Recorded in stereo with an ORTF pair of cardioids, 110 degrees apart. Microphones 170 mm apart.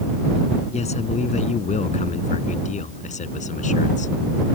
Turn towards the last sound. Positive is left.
turn(degrees=45)